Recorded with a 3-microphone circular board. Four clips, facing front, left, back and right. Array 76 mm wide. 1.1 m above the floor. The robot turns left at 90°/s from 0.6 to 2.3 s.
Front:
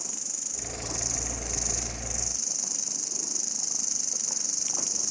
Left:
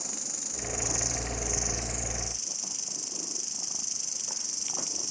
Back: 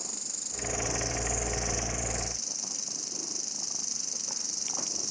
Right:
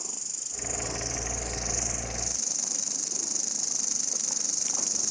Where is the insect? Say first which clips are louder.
Left 4 dB, front 1 dB; 85° left, 1.6 m; by 5.1 s 70° right, 1.6 m.